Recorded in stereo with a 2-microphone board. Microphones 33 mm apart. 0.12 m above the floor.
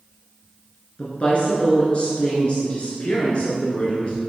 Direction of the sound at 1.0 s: 35° left (ahead or behind).